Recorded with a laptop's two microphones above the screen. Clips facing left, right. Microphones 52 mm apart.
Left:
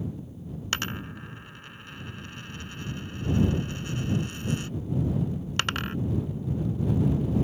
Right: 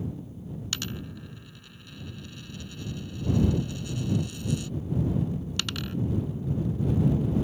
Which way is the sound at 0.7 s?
45° left (ahead or behind).